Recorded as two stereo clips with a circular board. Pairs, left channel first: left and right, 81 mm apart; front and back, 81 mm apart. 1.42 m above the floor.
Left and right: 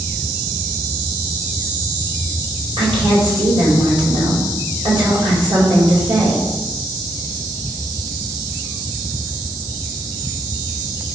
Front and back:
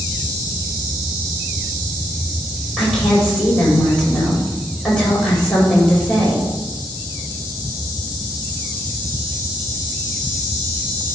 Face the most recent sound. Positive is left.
turn(degrees=-80)